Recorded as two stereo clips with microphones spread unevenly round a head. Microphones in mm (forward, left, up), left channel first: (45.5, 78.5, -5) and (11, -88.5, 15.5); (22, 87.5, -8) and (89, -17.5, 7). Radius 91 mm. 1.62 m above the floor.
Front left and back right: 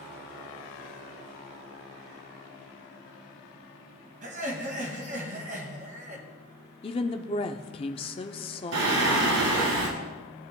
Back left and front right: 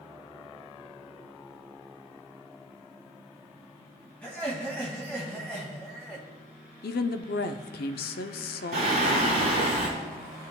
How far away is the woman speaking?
About 0.5 m.